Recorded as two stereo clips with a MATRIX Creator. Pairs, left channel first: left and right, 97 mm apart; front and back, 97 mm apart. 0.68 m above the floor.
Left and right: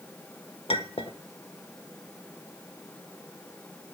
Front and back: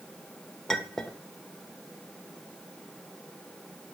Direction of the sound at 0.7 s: 85° left.